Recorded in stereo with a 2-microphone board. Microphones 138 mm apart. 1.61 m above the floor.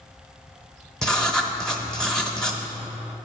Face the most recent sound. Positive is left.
turn(degrees=5)  # may be behind; listen again after turning